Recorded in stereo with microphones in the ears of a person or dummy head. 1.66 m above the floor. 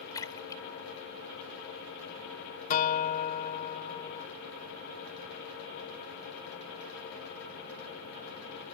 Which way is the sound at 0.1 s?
15° left (ahead or behind).